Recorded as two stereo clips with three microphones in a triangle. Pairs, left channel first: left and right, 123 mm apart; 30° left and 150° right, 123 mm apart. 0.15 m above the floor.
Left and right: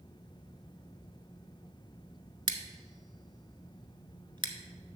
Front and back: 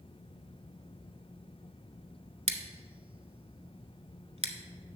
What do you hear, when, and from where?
2.5 s scissors: 135° right, 0.7 m